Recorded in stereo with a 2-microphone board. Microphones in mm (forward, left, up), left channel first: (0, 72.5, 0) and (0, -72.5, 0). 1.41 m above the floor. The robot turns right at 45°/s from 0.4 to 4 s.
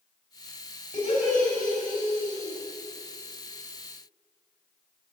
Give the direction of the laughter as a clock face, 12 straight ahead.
10 o'clock.